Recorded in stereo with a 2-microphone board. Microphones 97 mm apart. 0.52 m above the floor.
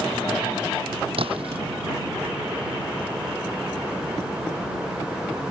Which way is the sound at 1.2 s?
65° right (ahead or behind).